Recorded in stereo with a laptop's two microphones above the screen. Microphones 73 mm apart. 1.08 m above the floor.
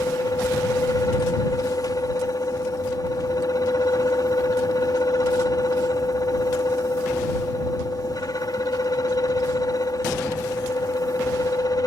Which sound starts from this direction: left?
A fan, at 0.0 s.